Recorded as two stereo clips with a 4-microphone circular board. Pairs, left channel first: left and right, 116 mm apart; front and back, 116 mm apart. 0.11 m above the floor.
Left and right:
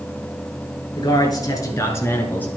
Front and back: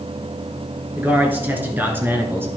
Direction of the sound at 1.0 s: 115° left.